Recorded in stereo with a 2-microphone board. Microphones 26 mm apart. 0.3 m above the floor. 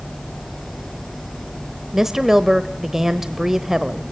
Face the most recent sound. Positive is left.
turn(degrees=-15)  # may be behind; listen again after turning